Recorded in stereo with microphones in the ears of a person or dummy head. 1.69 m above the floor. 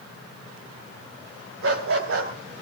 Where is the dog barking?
65° right (ahead or behind), 3.5 m.